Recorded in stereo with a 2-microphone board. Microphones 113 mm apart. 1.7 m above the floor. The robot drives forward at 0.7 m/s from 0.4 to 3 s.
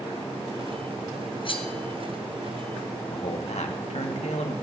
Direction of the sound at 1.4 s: 50° left (ahead or behind).